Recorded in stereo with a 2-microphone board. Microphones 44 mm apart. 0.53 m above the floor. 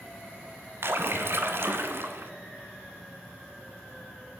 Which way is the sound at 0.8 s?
60° right (ahead or behind).